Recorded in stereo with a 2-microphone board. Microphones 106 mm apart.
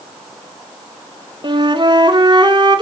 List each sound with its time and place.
1.4 s a flute: 45° right (ahead or behind), 0.6 m